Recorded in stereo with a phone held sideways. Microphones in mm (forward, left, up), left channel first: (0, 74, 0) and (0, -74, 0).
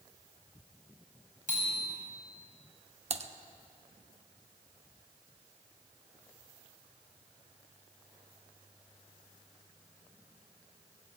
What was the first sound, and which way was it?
A bicycle bell, 65° right (ahead or behind).